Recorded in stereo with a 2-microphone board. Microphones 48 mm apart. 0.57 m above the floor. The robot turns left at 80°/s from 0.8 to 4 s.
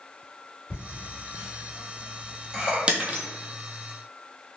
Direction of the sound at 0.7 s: 35° left (ahead or behind).